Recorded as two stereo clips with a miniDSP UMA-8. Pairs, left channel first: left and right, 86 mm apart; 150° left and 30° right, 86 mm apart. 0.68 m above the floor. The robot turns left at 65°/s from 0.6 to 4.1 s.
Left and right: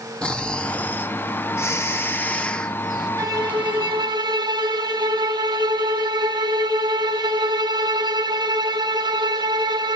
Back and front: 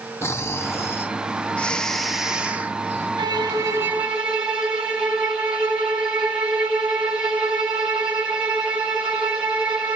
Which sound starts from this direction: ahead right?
A violin, at 3.2 s.